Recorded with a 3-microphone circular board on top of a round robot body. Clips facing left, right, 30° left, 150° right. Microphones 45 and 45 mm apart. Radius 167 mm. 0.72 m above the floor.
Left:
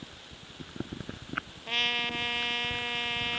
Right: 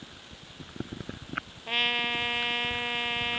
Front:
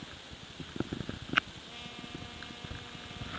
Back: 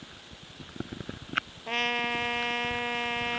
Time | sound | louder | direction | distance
1.7 | a trumpet | right 2 dB, back 17 dB | 170° right | ?